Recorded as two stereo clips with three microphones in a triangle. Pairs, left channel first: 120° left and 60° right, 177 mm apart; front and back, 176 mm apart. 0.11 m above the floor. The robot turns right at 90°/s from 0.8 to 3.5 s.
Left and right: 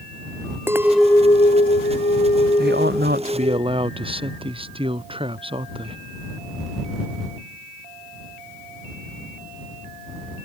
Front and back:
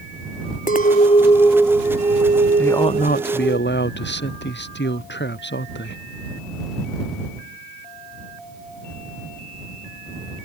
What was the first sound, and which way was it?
A clink, 15° left.